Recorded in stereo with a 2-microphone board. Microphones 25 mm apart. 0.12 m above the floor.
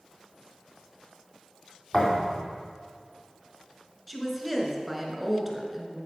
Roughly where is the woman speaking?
Centre.